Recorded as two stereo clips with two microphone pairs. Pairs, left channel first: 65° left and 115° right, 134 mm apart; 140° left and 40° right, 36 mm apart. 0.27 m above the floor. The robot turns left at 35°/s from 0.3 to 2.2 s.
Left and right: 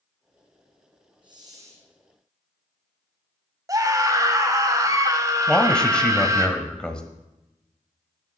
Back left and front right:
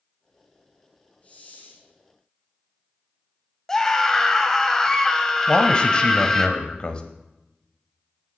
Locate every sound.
1.2 s a hiss: 165° right, 2.5 m; by 1.9 s 170° left, 2.5 m
3.7 s a scream: 155° right, 1.5 m
5.5 s a man speaking: 140° left, 1.0 m